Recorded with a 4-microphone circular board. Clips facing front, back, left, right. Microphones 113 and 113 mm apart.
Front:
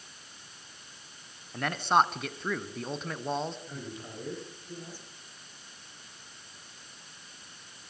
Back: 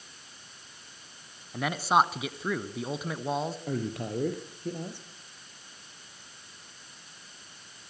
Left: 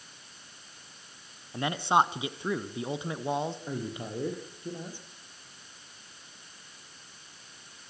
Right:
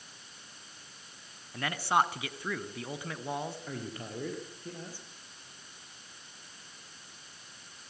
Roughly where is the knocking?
I don't hear knocking.